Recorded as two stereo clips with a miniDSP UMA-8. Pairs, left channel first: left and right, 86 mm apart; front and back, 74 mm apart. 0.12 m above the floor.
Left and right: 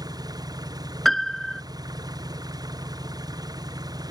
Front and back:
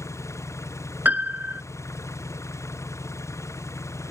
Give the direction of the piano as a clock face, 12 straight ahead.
6 o'clock.